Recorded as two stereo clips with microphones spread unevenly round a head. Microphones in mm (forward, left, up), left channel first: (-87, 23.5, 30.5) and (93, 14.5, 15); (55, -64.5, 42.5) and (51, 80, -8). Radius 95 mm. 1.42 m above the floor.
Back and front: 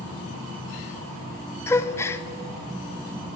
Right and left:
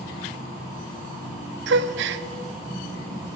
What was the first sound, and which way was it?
A gasp, 105° left.